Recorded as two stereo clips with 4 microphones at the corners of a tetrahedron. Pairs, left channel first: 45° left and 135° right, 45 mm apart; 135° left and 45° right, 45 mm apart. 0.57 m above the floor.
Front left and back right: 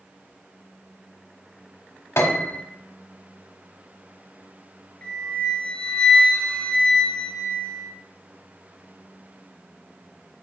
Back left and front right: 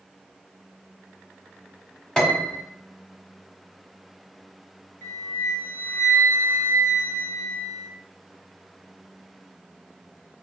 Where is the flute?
115° left, 1.5 m.